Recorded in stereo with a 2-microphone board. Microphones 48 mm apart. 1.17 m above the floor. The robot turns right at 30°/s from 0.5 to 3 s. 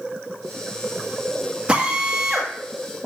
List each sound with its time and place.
1.7 s a drill: 25° right (ahead or behind), 2.0 m; by 2.5 s centre (ahead or behind), 2.0 m